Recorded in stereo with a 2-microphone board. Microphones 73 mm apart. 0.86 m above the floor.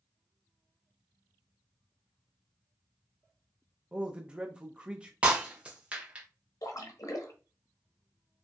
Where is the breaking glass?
15° right (ahead or behind), 1.3 m.